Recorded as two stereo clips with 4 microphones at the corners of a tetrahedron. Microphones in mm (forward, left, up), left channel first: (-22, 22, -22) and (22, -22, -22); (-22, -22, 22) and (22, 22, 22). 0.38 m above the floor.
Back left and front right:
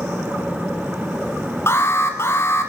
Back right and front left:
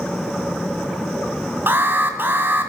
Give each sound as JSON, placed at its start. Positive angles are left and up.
{"t": 1.7, "sound": "an alarm", "azimuth_deg": 95, "distance_m": 2.5}